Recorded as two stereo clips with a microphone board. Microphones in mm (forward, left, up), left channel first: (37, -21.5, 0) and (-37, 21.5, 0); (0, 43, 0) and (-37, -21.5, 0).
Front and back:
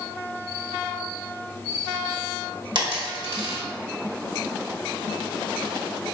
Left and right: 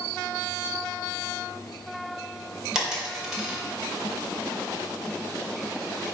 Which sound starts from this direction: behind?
A dropped coin, at 2.8 s.